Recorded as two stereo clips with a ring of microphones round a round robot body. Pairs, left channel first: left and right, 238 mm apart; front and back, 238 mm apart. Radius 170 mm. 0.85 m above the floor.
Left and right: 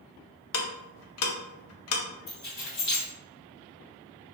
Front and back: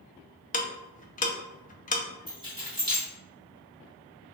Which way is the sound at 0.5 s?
65° left.